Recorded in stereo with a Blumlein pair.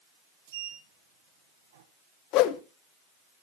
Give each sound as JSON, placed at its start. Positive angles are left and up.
{"t": 0.5, "sound": "a sliding door", "azimuth_deg": -55, "distance_m": 1.1}
{"t": 2.3, "sound": "a whoosh", "azimuth_deg": 40, "distance_m": 0.7}